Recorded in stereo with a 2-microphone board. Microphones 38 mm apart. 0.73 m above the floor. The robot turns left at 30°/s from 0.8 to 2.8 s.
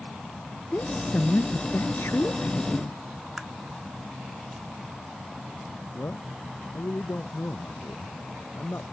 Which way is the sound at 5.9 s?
90° left.